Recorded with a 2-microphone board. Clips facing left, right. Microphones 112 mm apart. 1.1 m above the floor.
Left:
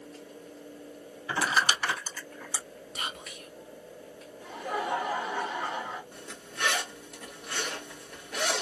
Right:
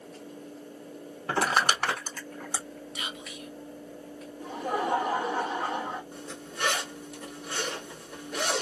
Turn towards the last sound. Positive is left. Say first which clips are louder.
# right 3 dB
turn(degrees=-5)  # may be behind; listen again after turning